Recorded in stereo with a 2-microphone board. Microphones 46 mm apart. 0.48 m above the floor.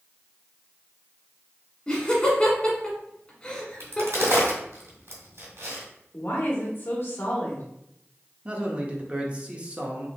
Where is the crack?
70° right (ahead or behind), 1.5 m.